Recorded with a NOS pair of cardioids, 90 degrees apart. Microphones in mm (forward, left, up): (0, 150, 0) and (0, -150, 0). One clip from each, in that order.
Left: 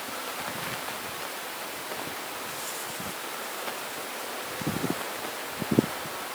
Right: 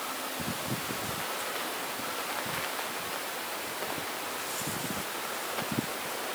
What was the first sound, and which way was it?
Only background noise.